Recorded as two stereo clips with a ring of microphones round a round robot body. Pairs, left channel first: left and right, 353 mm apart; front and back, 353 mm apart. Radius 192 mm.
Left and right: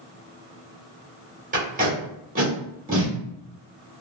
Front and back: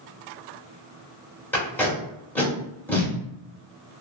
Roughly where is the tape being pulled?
Right.